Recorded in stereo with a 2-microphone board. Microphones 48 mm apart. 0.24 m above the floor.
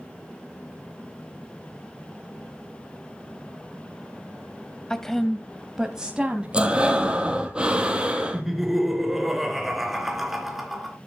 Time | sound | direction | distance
4.9 | a woman speaking | 10° left (ahead or behind) | 1.0 m
6.5 | breathing | 20° right (ahead or behind) | 1.7 m
8.3 | laughter | 5° right (ahead or behind) | 3.5 m